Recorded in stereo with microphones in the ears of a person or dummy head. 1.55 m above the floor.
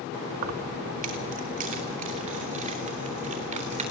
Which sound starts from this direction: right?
Keys jangling, at 0.3 s.